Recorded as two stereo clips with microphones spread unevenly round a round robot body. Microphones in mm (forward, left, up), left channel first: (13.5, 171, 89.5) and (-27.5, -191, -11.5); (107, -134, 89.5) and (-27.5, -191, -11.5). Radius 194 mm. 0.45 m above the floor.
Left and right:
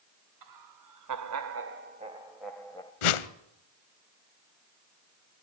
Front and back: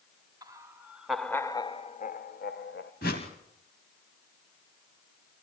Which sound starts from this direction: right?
Laughter, at 0.4 s.